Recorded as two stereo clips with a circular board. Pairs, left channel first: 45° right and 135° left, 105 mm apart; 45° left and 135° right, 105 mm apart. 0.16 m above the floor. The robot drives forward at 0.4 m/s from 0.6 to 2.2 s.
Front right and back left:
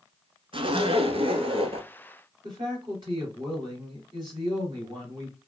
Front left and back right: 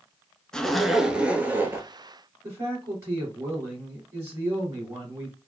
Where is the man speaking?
165° left, 3 m.